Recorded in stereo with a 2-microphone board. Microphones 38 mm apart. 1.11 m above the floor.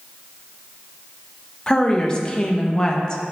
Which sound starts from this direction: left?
A woman speaking, at 1.7 s.